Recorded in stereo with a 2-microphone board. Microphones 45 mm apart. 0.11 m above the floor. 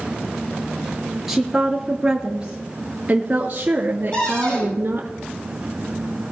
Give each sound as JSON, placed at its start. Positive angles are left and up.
{"t": 1.3, "sound": "a woman speaking", "side_deg": -10, "distance_m": 2.0}
{"t": 4.1, "sound": "a cupboard door", "side_deg": 25, "distance_m": 7.0}